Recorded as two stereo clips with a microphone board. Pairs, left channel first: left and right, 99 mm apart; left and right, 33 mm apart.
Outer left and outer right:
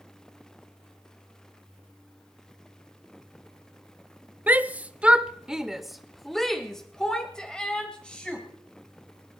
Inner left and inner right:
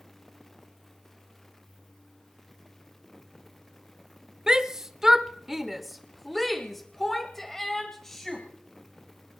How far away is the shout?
About 0.8 m.